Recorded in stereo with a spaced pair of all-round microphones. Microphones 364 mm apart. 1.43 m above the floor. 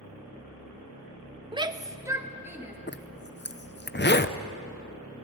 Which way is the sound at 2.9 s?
30° left (ahead or behind).